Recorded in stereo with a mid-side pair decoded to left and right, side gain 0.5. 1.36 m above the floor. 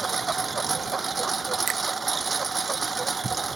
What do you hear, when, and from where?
0.0 s a lawn mower: 25° right
1.7 s a finger snap: 55° right